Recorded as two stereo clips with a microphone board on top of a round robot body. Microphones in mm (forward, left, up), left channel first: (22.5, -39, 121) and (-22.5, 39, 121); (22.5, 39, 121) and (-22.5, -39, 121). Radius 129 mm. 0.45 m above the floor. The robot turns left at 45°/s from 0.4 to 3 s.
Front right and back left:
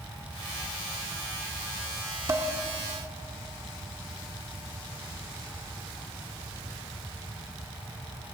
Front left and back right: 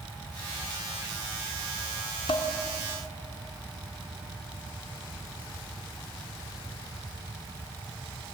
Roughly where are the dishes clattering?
Ahead left.